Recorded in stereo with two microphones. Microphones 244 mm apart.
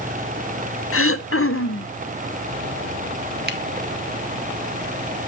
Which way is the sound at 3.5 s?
40° right (ahead or behind).